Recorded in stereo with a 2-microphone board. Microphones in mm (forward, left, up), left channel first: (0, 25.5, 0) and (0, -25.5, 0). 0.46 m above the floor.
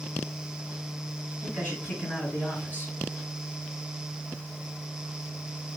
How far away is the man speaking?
About 6 m.